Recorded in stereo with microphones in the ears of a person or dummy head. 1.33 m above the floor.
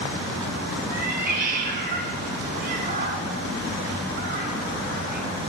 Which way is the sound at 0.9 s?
50° right (ahead or behind).